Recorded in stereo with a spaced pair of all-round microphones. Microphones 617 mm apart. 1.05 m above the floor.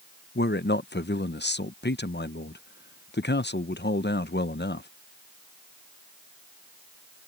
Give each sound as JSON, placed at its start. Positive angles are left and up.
{"t": 0.3, "sound": "a man speaking", "side_deg": 20}